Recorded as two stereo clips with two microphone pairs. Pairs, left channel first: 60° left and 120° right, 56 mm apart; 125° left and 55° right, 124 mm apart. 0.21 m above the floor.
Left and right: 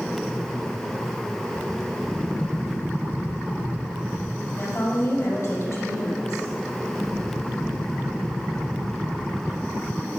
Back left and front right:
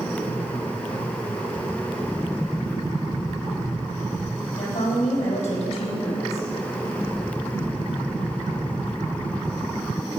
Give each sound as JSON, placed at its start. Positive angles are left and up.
{"t": 4.6, "sound": "a woman speaking", "azimuth_deg": 90, "distance_m": 5.0}